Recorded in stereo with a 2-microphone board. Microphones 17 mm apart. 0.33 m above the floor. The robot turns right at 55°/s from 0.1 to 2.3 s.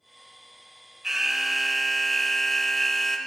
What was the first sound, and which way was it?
An alarm, 50° right.